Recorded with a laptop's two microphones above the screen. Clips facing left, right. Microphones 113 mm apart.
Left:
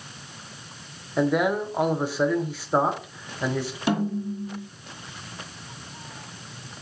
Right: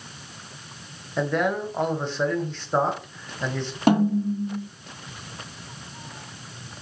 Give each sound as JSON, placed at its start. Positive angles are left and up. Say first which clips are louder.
{"t": 1.2, "sound": "a man speaking", "louder": "left 2 dB", "side_deg": 10, "distance_m": 1.0}
{"t": 3.9, "sound": "a snare drum", "louder": "right 7 dB", "side_deg": -60, "distance_m": 1.8}